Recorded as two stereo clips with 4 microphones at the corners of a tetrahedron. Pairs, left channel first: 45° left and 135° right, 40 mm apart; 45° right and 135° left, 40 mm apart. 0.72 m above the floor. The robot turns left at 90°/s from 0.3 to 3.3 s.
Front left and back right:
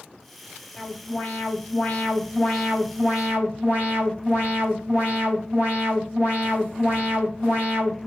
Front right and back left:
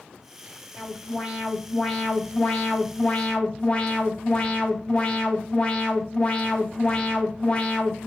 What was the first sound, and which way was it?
An alarm, 125° left.